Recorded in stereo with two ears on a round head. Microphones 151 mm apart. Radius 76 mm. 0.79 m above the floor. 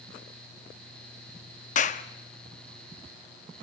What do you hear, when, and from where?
1.8 s a clap: 45° left (ahead or behind), 0.9 m